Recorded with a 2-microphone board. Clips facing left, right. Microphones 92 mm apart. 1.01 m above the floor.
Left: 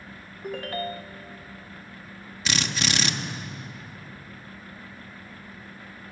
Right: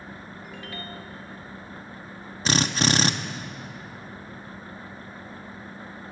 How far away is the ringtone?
About 0.7 m.